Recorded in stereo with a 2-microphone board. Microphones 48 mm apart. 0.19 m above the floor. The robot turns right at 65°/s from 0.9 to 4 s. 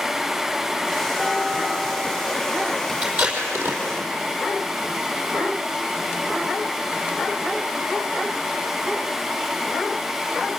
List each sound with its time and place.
1.2 s dishes clattering: 165° left, 6 m; by 2.3 s 120° right, 6 m
3.0 s tape being pulled: 25° right (ahead or behind), 5 m; by 3.8 s 75° right (ahead or behind), 5 m